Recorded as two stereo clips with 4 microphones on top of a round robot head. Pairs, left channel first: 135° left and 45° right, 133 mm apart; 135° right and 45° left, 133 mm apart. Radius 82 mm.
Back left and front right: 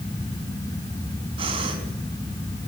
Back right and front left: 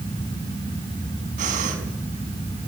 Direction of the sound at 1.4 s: 10° left.